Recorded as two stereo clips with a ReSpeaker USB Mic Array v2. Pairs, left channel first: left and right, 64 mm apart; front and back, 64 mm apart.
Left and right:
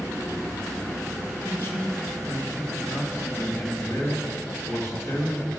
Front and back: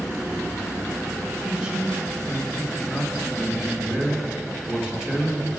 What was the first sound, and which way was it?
A man speaking, 105° left.